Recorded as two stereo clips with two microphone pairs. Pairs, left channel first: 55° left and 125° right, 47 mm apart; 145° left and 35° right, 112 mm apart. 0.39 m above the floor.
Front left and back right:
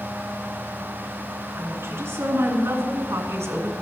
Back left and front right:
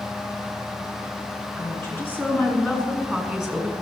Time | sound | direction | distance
1.6 | a woman speaking | 150° right | 4.5 m